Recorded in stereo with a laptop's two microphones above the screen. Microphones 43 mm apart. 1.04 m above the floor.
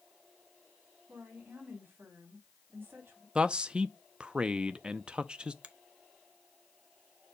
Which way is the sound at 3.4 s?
25° right (ahead or behind).